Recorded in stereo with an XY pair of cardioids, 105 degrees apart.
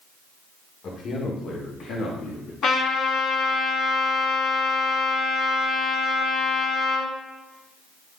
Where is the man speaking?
55° left, 2.5 m; by 2.5 s 80° left, 3 m.